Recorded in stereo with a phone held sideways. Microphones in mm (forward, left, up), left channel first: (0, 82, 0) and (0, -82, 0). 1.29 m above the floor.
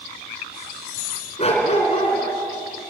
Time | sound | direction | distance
1.4 | a dog barking | 40° left (ahead or behind) | 3.5 m